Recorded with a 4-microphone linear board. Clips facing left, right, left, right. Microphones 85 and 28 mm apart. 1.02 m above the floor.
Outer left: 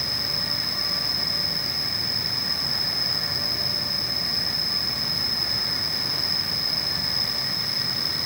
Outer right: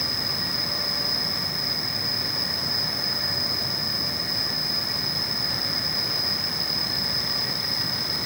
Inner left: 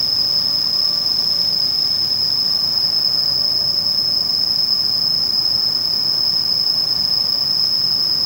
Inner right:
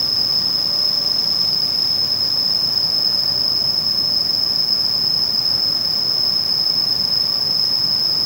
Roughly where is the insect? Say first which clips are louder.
Outer right 1 dB, inner left 1 dB; centre.